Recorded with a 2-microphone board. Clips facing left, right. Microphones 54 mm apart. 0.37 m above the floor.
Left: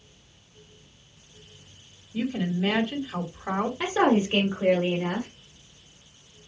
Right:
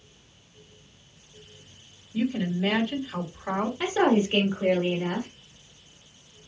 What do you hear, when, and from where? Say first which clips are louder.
2.1 s a woman speaking: right 1 dB; 10° left (ahead or behind), 2.0 m
3.8 s a woman speaking: even; 20° left (ahead or behind), 1.6 m